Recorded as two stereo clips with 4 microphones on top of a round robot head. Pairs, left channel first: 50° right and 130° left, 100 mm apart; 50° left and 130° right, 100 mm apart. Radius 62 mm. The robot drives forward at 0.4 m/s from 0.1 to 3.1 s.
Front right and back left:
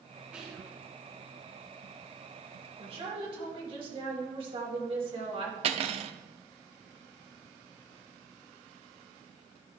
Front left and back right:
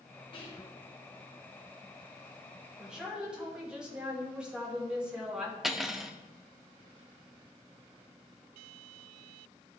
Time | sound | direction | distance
0.3 | whispering | 50° left | 1.6 m
2.8 | a woman speaking | 150° left | 2 m
5.6 | cutlery clinking | 145° left | 0.6 m